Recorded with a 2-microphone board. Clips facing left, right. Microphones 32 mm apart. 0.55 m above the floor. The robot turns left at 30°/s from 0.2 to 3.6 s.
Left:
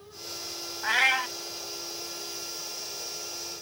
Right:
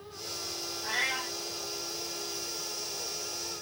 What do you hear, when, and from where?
0.8 s a cat meowing: 75° left (ahead or behind), 0.8 m